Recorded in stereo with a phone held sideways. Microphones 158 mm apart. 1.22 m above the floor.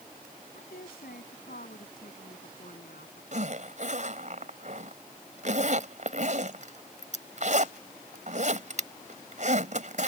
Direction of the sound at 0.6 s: 85° left.